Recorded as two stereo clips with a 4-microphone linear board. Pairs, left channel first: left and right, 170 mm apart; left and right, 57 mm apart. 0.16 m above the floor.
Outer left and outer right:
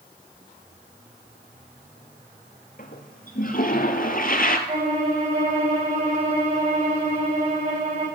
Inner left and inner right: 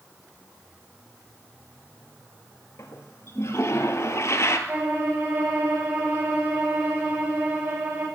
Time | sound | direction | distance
2.8 | a toilet flushing | 55° left (ahead or behind) | 1.0 m
4.7 | a violin | 40° right (ahead or behind) | 4.5 m